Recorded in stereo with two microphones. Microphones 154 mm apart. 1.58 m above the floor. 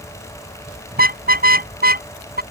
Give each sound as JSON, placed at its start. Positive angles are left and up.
{"t": 0.9, "sound": "a car horn", "side_deg": -80}